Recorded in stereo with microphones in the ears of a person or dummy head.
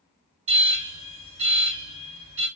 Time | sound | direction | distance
0.5 | an alarm | 30° right (ahead or behind) | 2 m